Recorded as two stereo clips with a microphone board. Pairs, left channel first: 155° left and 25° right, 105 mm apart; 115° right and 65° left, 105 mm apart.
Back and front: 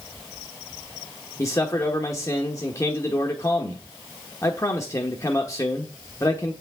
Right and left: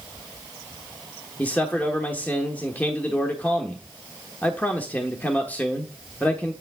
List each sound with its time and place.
1.4 s a man speaking: 175° right, 1.0 m